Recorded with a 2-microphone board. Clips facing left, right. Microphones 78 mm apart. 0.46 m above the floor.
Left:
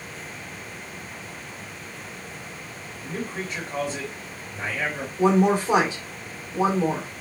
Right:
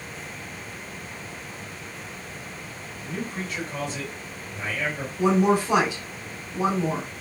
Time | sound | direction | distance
3.0 | a man speaking | 30° left (ahead or behind) | 2 m
5.2 | a woman speaking | 25° left (ahead or behind) | 1.6 m